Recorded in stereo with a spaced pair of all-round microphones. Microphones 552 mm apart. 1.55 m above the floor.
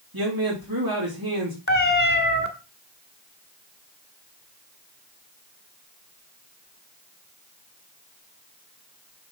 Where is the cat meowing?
20° left (ahead or behind), 1.3 m.